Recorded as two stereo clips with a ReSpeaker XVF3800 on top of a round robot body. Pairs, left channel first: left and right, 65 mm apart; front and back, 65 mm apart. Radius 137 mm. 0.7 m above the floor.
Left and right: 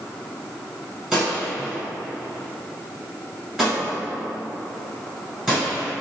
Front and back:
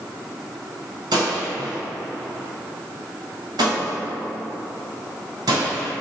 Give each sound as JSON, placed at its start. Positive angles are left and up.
{"t": 1.1, "sound": "a gunshot", "azimuth_deg": -175, "distance_m": 1.6}